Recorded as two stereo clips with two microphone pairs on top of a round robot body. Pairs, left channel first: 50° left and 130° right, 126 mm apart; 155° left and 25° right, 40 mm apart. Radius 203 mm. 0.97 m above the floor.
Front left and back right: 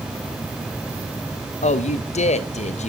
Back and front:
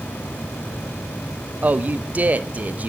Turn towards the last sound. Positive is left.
turn(degrees=20)